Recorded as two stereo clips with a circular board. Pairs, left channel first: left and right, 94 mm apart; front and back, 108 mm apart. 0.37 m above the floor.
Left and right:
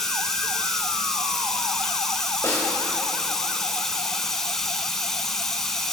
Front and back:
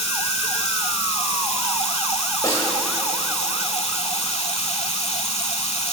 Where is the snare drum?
50° left, 1.7 m.